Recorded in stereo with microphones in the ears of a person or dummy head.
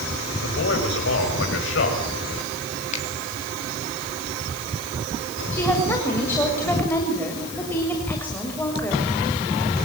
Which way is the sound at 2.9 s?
45° left (ahead or behind).